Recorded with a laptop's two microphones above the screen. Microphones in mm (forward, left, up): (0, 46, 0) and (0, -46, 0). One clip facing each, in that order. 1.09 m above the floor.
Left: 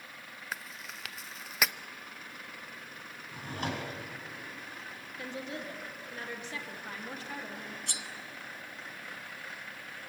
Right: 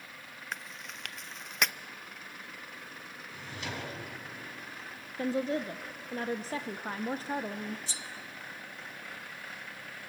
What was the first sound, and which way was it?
Chewing, 5° left (ahead or behind).